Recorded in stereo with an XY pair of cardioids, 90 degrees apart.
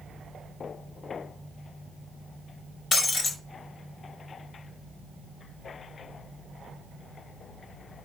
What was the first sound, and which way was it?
Breaking glass, 55° left.